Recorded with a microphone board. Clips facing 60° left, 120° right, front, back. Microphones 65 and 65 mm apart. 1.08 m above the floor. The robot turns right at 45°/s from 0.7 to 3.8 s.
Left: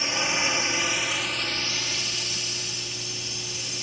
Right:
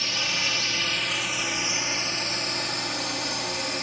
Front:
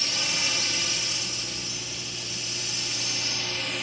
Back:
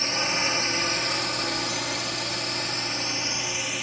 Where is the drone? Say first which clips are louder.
Left 3 dB, back 5 dB; 125° left; by 3.8 s 95° right.